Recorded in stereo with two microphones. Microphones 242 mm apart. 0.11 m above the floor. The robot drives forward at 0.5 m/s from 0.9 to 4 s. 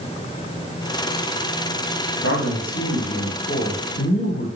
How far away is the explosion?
No explosion in this recording.